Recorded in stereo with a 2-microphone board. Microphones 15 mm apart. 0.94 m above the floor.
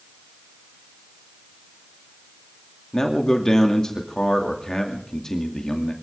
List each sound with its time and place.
2.9 s a man speaking: 40° left (ahead or behind), 2.5 m